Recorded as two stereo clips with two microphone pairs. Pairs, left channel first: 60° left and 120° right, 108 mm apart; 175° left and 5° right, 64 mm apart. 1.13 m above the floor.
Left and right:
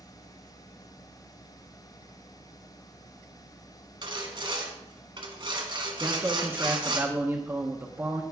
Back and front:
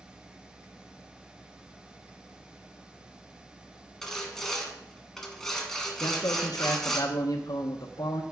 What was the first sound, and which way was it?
Sawing, 105° right.